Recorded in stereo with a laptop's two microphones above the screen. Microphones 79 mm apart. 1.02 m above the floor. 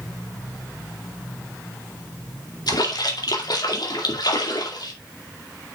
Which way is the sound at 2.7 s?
65° left (ahead or behind).